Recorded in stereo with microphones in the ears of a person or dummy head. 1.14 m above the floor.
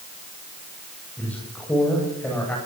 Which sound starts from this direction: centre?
A man speaking, at 1.2 s.